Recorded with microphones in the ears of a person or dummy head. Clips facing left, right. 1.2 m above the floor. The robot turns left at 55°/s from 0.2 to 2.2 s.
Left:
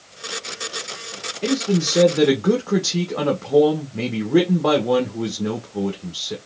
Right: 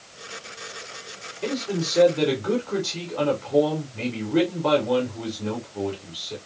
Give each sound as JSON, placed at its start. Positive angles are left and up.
{"t": 1.4, "sound": "a man speaking", "azimuth_deg": 155, "distance_m": 0.8}